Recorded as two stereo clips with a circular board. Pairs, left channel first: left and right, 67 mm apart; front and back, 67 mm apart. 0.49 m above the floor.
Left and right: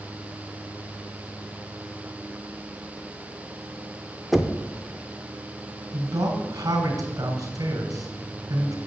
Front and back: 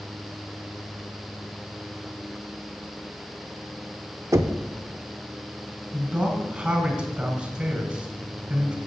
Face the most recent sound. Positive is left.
turn(degrees=-110)